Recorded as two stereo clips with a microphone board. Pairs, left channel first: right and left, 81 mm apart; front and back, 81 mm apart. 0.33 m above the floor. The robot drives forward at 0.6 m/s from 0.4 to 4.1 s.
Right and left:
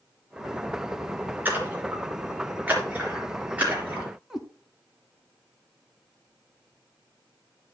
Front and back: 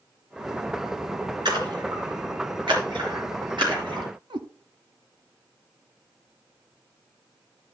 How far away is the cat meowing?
About 1.1 m.